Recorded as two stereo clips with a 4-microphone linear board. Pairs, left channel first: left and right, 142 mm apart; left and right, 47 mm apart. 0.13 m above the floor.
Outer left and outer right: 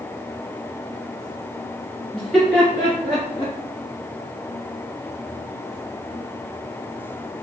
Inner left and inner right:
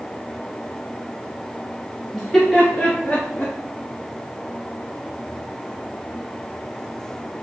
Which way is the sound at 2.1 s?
Centre (ahead or behind).